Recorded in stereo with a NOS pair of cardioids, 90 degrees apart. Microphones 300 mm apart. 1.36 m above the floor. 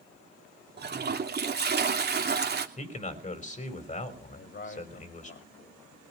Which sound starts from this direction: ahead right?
A toilet flushing, at 0.8 s.